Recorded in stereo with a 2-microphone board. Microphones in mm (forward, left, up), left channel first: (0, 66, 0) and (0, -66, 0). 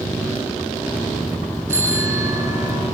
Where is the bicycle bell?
20° right (ahead or behind), 4.5 m.